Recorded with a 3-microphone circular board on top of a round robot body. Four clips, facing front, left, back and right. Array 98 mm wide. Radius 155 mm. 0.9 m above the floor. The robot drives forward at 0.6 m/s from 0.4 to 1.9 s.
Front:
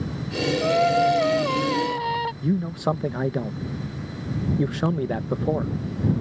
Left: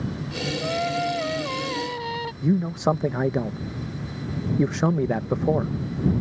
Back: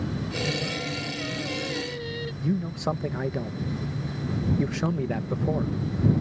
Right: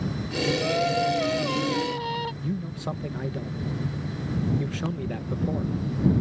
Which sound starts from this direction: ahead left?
A man speaking, at 2.4 s.